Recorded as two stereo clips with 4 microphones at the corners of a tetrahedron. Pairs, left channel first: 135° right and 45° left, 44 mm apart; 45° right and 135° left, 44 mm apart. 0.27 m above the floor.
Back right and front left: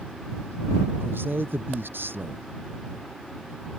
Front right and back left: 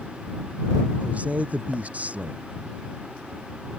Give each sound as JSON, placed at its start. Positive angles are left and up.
{"t": 1.0, "sound": "a man speaking", "azimuth_deg": 80}